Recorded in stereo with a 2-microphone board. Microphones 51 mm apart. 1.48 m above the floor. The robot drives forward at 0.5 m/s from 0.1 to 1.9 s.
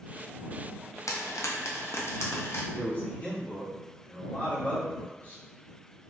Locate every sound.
1.1 s frying: 80° left, 0.5 m; by 2.6 s 55° left (ahead or behind), 0.7 m
2.7 s a man speaking: 30° left (ahead or behind), 1.4 m